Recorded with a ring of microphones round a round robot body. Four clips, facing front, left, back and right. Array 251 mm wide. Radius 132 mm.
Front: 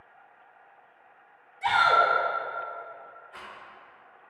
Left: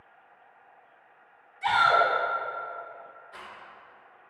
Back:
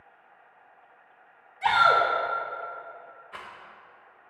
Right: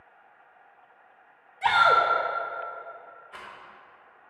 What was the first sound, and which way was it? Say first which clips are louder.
A shout: right 2 dB, back 1 dB; 115° right.